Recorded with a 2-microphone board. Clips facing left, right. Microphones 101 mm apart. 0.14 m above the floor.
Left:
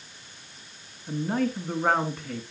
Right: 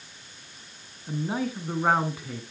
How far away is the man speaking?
About 1.1 m.